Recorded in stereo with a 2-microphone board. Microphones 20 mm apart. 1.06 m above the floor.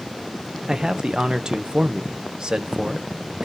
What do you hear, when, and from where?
0.7 s a man speaking: 45° right (ahead or behind), 0.7 m